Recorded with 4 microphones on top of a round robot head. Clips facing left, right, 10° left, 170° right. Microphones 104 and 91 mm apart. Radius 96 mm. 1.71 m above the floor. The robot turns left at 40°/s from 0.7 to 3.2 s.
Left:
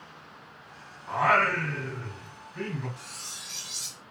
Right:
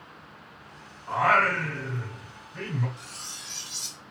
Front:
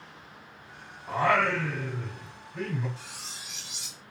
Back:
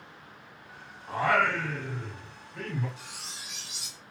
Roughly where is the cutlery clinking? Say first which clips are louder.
Right 1 dB, even; left.